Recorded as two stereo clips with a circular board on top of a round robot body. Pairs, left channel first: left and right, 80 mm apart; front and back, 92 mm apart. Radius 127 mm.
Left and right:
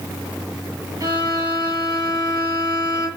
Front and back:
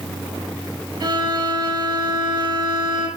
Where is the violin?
135° right, 7 m.